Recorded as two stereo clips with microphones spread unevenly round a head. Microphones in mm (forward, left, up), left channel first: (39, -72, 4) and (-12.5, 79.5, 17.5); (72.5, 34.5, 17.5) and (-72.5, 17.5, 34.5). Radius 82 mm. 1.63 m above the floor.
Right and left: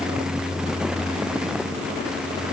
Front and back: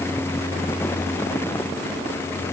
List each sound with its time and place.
Only background noise.